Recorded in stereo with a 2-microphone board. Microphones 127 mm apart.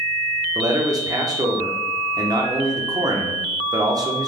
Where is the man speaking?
30° right (ahead or behind), 0.8 m.